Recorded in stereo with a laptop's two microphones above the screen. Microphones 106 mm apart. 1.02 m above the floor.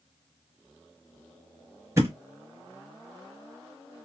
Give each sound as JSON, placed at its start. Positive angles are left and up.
{"t": 2.0, "sound": "a thud", "side_deg": -25, "distance_m": 0.9}